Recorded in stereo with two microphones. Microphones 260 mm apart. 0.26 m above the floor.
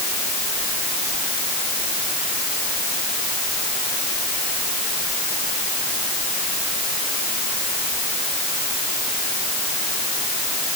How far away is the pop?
I don't hear a pop.